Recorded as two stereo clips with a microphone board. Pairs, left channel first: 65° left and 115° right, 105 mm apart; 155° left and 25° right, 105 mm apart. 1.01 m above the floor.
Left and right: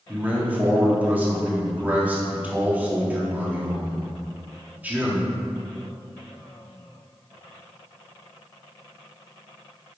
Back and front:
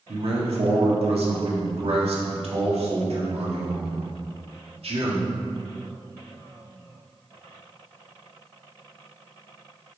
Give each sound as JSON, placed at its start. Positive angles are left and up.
{"t": 0.1, "sound": "a man speaking", "azimuth_deg": -40, "distance_m": 1.9}